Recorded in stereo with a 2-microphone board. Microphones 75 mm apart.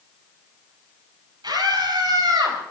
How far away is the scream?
About 8.5 m.